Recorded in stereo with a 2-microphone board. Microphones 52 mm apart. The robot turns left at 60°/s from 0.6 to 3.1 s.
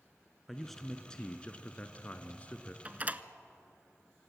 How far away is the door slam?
About 0.9 m.